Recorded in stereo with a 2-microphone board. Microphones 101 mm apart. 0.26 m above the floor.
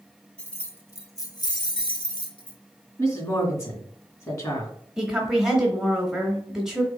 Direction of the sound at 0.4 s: 10° left (ahead or behind).